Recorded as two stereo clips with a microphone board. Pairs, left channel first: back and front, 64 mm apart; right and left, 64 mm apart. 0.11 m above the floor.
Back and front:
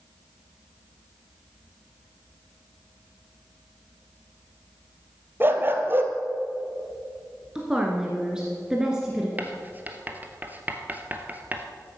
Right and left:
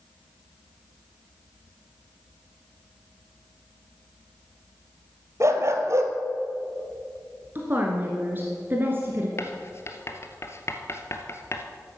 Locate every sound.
5.4 s a dog barking: 55° left, 1.2 m
7.5 s a woman speaking: 70° left, 1.7 m
9.4 s writing: 55° right, 1.3 m